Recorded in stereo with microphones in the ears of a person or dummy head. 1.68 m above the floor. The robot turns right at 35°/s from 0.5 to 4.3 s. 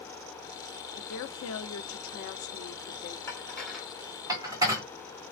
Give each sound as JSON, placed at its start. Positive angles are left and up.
{"t": 1.0, "sound": "a woman speaking", "azimuth_deg": 75, "distance_m": 0.9}
{"t": 3.3, "sound": "dishes clattering", "side_deg": 15, "distance_m": 1.9}